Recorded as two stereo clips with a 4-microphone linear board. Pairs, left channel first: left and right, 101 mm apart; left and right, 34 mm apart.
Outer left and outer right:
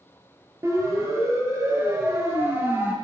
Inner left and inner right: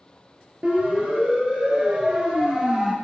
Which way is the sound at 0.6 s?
35° right (ahead or behind).